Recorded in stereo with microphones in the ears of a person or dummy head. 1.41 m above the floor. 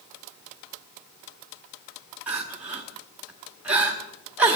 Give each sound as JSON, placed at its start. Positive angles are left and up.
{"t": 2.3, "sound": "crying", "side_deg": -10, "distance_m": 1.3}